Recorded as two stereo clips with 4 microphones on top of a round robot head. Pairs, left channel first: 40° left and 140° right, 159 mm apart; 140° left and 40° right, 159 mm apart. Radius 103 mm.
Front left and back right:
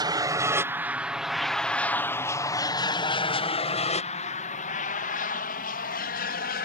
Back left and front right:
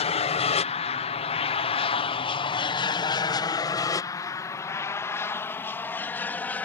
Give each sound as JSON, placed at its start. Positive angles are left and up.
{"t": 0.0, "sound": "an aircraft", "azimuth_deg": 165}